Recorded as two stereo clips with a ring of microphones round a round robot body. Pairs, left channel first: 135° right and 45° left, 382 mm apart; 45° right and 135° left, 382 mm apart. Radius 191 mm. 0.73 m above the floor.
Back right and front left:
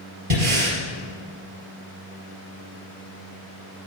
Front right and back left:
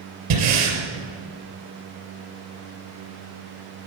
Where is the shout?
I don't hear a shout.